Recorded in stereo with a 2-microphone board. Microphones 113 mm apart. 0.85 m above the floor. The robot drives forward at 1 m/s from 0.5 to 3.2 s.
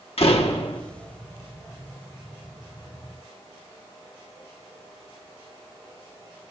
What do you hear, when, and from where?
0.2 s a door slam: 60° left (ahead or behind), 1.5 m; by 0.8 s 55° left (ahead or behind), 1.7 m